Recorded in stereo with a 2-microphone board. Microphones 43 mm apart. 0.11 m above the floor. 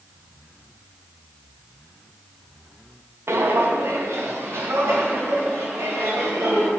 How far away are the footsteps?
About 0.7 m.